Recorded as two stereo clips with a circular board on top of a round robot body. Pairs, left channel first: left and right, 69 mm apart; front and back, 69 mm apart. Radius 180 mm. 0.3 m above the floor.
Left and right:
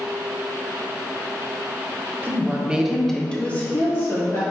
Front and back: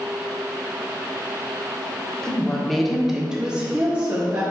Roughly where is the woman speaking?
Right.